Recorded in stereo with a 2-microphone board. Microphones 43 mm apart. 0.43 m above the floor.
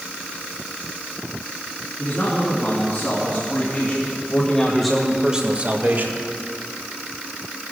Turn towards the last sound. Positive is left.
turn(degrees=-60)  # may be behind; listen again after turning